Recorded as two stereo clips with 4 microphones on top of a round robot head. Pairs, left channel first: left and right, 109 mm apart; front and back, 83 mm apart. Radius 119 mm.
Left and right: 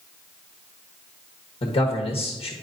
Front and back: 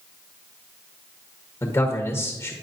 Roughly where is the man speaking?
Ahead left.